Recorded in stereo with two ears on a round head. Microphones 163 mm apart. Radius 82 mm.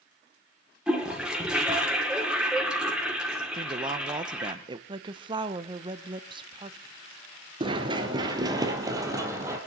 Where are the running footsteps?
30° right (ahead or behind), 1.1 m; by 9.6 s 15° right (ahead or behind), 2 m.